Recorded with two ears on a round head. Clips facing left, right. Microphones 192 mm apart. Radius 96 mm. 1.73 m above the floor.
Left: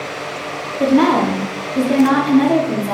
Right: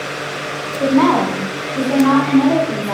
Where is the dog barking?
I don't hear a dog barking.